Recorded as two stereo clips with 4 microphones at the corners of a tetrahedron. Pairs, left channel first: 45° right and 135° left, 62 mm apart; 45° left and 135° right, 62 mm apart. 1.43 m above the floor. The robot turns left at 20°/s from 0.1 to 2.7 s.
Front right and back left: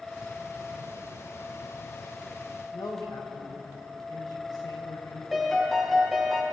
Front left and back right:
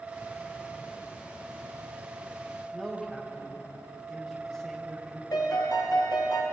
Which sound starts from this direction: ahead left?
A piano, at 5.3 s.